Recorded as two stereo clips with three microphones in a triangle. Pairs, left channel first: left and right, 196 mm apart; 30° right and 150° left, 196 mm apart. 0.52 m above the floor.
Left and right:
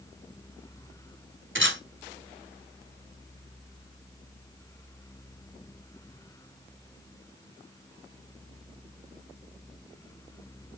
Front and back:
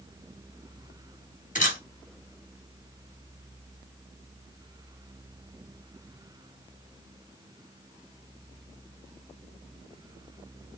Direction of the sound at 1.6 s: 80° right.